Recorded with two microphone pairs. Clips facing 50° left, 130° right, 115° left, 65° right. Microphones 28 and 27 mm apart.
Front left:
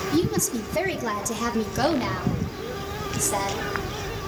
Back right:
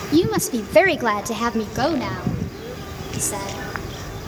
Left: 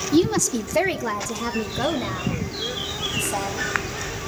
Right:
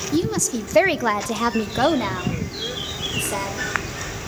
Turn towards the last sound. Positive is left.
turn(degrees=-35)